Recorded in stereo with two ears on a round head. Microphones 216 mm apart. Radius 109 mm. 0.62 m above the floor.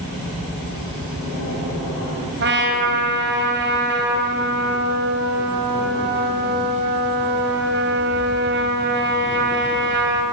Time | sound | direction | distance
2.4 | a trumpet | 45° right (ahead or behind) | 3 m